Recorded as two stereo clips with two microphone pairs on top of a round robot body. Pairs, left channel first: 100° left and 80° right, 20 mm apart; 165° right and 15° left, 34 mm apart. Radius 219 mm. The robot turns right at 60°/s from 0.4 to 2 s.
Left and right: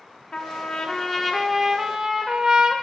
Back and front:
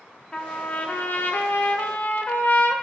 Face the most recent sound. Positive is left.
turn(degrees=-140)